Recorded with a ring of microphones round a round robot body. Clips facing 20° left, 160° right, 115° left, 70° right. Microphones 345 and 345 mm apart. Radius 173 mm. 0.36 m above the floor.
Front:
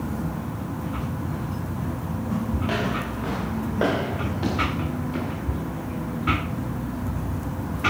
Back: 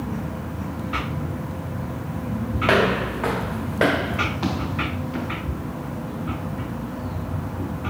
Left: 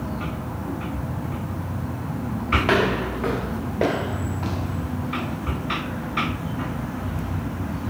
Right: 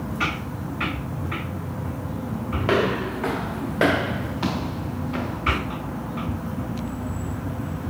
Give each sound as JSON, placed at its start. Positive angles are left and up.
{"t": 2.6, "sound": "footsteps", "azimuth_deg": -170, "distance_m": 2.5}